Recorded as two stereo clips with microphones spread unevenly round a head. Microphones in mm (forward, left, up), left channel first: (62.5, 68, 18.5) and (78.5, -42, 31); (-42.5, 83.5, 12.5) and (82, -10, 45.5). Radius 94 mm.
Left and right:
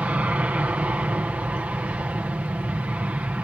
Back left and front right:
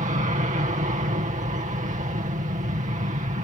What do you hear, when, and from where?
0.0 s an aircraft: 5° right